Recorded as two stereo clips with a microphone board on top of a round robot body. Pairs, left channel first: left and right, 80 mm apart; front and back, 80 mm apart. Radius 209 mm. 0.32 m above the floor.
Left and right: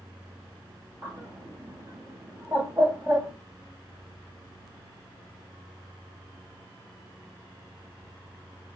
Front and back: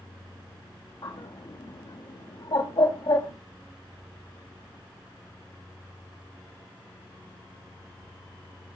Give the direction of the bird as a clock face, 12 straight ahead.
1 o'clock.